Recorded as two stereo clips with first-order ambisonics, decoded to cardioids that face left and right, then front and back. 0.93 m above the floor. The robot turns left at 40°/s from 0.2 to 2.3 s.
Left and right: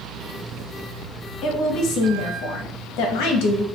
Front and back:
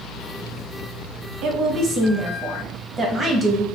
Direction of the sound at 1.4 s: 140° left.